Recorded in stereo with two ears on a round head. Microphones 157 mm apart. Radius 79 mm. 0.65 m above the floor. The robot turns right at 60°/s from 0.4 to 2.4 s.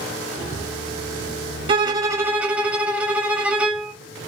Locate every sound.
1.7 s a violin: 60° right, 0.8 m; by 3.9 s 15° right, 0.8 m